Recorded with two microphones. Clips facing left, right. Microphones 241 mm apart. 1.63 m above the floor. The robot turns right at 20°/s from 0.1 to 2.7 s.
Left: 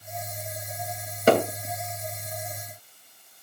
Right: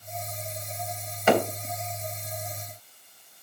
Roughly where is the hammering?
Left.